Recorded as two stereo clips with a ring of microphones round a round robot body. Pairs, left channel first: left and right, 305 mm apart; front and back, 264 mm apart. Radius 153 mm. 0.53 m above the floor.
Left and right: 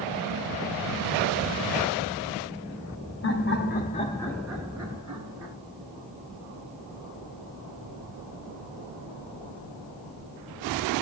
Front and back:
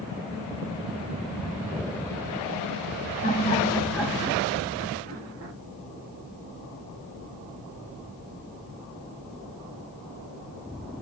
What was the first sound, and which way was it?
Laughter, 50° left.